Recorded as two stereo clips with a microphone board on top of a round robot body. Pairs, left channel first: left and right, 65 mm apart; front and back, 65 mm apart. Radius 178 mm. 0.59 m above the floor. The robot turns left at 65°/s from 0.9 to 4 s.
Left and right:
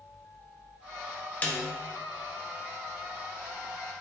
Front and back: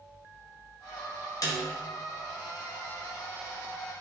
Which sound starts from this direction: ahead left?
A snare drum, at 1.4 s.